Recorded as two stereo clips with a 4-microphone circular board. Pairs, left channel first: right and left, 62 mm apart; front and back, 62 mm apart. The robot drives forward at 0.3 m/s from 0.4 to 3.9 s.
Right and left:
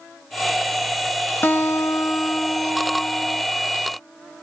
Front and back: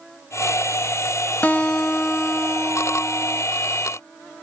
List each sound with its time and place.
1.4 s a guitar: 55° right, 0.6 m; by 3.4 s 130° right, 0.7 m